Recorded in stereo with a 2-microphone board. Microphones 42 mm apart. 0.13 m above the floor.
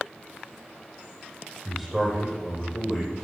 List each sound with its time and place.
1.6 s a man speaking: centre (ahead or behind), 4.5 m